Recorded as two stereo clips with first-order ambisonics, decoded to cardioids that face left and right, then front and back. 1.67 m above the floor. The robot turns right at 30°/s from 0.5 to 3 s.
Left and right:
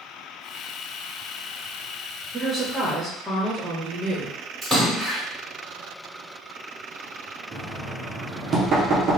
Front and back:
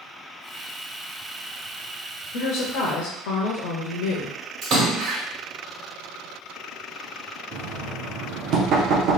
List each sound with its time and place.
2.3 s a woman speaking: 25° right, 0.6 m; by 4.4 s 5° right, 0.6 m
4.6 s a splash: 175° left, 1.7 m
7.5 s knocking: 145° right, 0.7 m